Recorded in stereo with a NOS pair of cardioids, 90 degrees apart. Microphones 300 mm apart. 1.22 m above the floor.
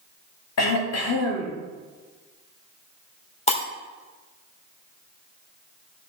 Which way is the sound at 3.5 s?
20° left.